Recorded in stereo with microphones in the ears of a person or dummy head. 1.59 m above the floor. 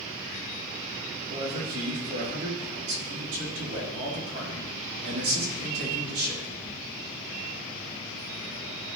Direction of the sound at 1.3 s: 35° right (ahead or behind).